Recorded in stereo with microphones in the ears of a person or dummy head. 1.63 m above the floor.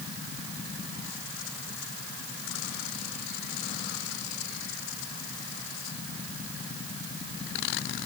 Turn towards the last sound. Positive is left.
No sound to turn to.